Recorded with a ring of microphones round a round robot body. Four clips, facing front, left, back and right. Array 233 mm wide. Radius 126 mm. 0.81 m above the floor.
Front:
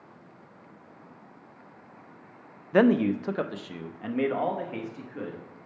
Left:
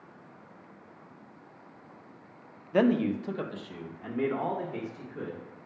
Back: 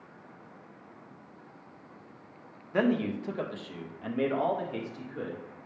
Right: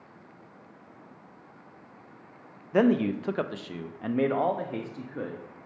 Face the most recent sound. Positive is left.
turn(degrees=-80)